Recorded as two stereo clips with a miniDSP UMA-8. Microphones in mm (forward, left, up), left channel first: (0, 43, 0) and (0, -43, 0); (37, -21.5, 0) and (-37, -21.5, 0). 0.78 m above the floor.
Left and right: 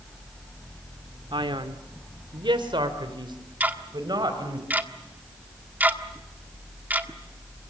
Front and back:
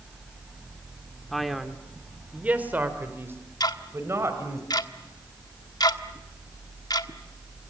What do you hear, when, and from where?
1.3 s a man speaking: 85° right, 2.5 m; by 4.6 s 130° right, 5 m
3.6 s ticking: 20° right, 1.4 m